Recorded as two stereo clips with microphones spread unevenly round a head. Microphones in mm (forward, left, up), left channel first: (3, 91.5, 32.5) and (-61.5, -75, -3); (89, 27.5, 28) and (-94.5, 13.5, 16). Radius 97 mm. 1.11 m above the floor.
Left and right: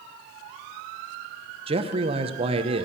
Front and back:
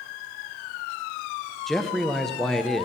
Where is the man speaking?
85° right, 0.9 m.